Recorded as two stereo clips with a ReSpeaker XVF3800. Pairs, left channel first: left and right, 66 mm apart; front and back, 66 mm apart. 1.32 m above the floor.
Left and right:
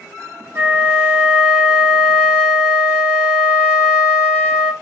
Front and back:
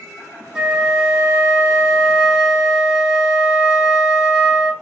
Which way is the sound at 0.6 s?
105° right.